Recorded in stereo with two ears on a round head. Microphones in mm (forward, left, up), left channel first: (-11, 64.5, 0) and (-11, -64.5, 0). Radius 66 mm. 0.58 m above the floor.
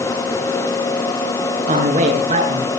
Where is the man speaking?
55° right (ahead or behind), 7 m; by 2.7 s 45° right (ahead or behind), 7 m.